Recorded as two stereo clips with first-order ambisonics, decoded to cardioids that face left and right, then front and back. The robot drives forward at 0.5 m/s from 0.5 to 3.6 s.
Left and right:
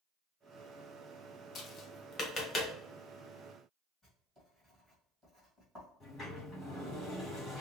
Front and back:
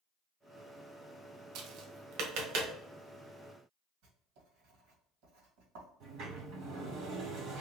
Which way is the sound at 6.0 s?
170° left.